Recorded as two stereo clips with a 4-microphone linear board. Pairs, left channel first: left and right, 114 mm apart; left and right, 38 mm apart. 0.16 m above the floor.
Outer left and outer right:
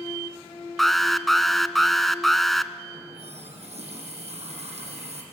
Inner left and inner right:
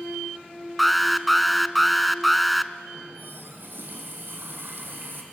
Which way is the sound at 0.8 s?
Centre (ahead or behind).